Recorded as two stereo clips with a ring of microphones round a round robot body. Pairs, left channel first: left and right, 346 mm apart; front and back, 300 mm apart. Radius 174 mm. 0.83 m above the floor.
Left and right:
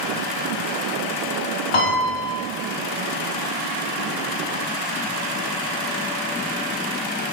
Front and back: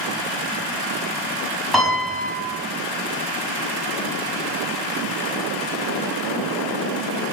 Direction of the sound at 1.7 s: 90° left.